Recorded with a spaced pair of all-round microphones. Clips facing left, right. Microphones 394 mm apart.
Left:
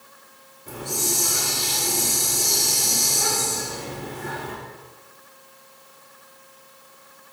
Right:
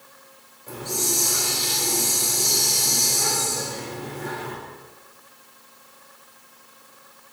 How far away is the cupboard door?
No cupboard door in this recording.